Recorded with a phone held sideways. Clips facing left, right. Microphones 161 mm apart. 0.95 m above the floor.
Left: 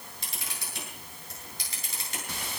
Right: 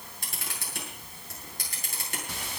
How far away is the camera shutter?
About 8 m.